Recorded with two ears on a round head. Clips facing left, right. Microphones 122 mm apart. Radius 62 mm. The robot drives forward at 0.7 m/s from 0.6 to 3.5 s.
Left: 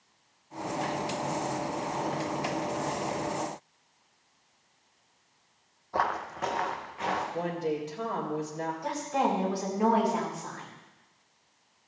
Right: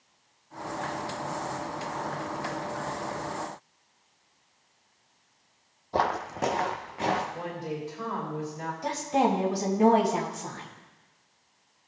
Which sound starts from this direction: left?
A woman speaking, at 7.3 s.